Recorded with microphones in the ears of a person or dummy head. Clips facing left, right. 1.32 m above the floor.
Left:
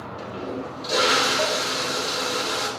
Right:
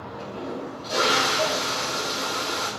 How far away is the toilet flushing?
About 2.5 m.